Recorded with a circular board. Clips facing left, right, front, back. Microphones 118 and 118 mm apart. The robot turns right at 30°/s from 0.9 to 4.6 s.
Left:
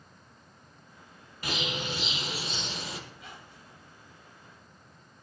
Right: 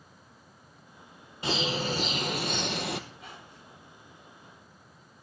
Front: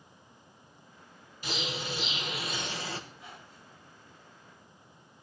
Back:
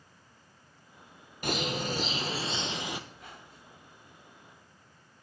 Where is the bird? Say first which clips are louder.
Right 5 dB, back 5 dB; 155° right, 1.2 m; by 3.0 s 105° right, 1.2 m.